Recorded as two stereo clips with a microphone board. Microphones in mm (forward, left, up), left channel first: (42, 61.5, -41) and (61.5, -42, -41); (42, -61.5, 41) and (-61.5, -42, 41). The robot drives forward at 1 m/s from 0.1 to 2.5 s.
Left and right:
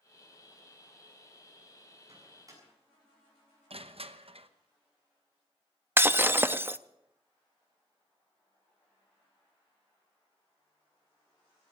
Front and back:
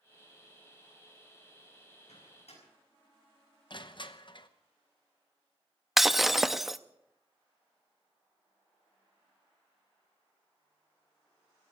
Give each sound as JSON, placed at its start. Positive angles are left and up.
{"t": 2.1, "sound": "a microwave", "azimuth_deg": -20, "distance_m": 7.5}
{"t": 3.7, "sound": "crushing", "azimuth_deg": -55, "distance_m": 0.9}
{"t": 6.0, "sound": "breaking glass", "azimuth_deg": -110, "distance_m": 0.5}